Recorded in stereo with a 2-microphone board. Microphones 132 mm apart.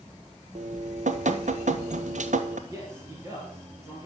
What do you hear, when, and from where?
0.6 s dripping: 65° right (ahead or behind), 1.0 m
2.7 s a man speaking: 20° right (ahead or behind), 4 m